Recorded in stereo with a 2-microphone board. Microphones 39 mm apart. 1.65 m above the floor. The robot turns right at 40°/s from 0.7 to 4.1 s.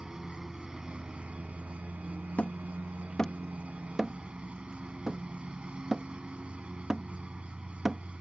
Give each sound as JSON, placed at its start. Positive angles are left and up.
{"t": 0.0, "sound": "a lawn mower", "azimuth_deg": -170}
{"t": 2.4, "sound": "hammering", "side_deg": 45}